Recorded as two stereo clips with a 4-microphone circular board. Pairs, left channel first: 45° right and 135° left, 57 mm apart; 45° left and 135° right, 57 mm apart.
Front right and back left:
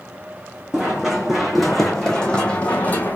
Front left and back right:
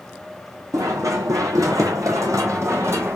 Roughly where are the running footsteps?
Behind right.